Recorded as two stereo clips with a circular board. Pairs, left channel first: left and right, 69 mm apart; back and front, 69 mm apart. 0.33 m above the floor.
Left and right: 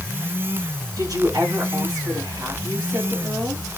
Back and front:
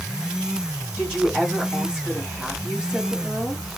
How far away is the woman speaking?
About 4.5 m.